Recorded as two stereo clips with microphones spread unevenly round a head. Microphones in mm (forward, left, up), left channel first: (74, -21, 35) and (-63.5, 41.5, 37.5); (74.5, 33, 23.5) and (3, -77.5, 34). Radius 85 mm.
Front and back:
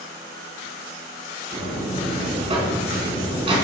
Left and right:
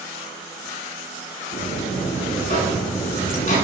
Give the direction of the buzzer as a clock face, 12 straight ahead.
9 o'clock.